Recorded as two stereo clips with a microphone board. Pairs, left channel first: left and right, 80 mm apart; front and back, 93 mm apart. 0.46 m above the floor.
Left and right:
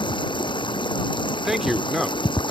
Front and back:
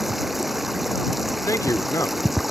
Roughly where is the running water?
Left.